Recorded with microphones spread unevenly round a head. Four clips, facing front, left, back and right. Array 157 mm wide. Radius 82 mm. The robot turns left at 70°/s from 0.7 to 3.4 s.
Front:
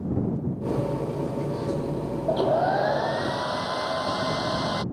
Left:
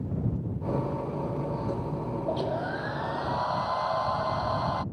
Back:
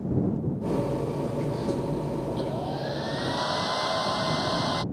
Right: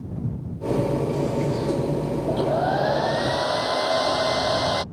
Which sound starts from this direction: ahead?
A hair dryer, at 2.3 s.